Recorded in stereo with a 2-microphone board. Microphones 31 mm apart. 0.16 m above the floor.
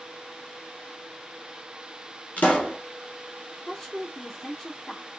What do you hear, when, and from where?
2.4 s a pop: 55° left (ahead or behind), 1.2 m
3.7 s a woman speaking: 10° left (ahead or behind), 1.2 m